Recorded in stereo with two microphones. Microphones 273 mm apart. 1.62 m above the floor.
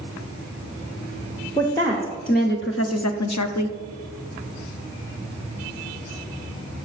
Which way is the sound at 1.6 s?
15° left (ahead or behind).